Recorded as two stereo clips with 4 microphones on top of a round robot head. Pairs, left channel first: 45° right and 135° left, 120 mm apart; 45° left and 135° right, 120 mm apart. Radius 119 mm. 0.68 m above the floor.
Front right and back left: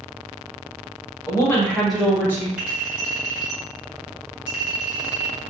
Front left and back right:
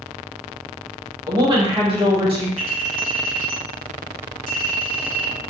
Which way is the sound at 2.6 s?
145° right.